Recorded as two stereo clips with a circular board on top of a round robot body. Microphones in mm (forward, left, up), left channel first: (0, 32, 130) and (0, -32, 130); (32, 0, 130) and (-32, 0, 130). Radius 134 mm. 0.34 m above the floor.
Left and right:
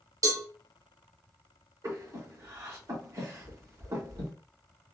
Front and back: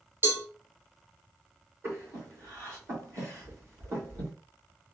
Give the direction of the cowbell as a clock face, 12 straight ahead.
4 o'clock.